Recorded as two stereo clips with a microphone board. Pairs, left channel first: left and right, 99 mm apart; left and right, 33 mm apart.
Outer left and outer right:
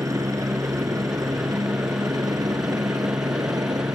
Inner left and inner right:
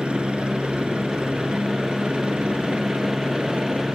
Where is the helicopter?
35° right (ahead or behind); by 4.0 s 40° right (ahead or behind).